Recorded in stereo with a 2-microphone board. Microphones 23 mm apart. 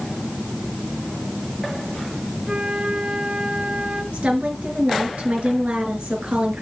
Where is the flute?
35° right (ahead or behind), 4.5 m.